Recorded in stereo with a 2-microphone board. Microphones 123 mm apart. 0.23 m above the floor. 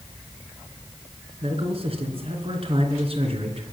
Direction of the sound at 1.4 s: 50° right (ahead or behind).